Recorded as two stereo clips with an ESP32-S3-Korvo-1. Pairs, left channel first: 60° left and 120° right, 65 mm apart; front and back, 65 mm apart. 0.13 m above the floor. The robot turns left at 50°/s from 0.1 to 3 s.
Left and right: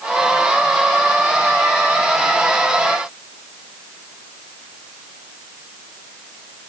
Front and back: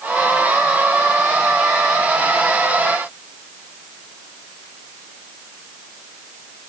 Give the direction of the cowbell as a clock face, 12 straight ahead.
I don't hear a cowbell.